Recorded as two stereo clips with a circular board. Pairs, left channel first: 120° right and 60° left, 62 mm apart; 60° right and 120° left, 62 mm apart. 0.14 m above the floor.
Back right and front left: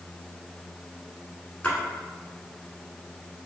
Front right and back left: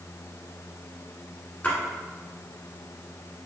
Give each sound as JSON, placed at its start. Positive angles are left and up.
{"t": 1.6, "sound": "a splash", "azimuth_deg": -80, "distance_m": 1.2}